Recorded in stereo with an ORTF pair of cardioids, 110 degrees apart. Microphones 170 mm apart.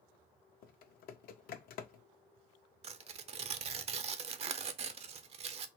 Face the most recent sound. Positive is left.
turn(degrees=-40)